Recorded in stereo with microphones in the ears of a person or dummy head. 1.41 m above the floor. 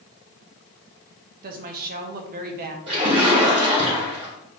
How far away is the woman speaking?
About 0.6 m.